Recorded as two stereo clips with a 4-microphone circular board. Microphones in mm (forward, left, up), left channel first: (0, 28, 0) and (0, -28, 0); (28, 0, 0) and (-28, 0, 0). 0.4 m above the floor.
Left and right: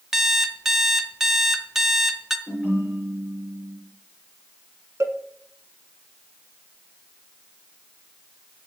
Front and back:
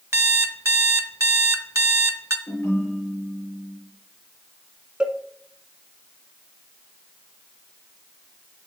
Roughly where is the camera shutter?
No camera shutter in this recording.